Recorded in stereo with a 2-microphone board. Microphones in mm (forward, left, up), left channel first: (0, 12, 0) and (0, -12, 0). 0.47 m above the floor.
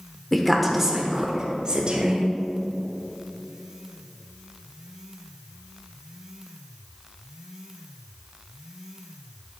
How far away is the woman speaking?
About 1.3 m.